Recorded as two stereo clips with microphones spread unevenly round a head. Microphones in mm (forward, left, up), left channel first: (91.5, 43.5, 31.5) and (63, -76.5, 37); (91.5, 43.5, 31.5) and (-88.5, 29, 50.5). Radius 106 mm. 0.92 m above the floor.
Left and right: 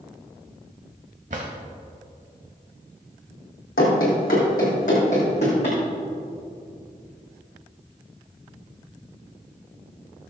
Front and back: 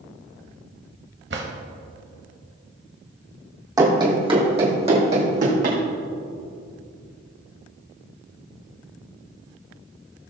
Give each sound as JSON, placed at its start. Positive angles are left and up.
{"t": 1.3, "sound": "a drawer", "azimuth_deg": -150, "distance_m": 1.2}
{"t": 3.8, "sound": "running footsteps", "azimuth_deg": 120, "distance_m": 2.5}